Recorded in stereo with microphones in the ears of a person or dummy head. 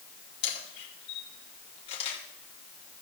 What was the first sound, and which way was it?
A camera shutter, 40° left (ahead or behind).